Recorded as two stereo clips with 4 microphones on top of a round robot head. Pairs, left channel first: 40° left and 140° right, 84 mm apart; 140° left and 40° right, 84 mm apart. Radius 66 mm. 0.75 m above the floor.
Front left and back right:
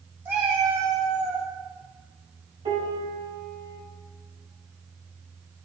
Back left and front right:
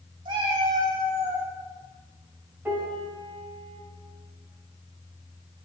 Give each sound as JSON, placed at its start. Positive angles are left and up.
{"t": 0.2, "sound": "a cat meowing", "azimuth_deg": -75, "distance_m": 1.5}
{"t": 2.6, "sound": "a piano", "azimuth_deg": -120, "distance_m": 3.0}